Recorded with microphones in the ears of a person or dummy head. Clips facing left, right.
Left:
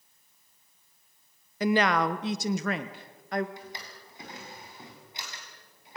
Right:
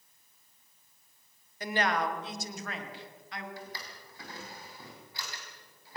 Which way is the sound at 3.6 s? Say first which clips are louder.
Even; 15° left (ahead or behind).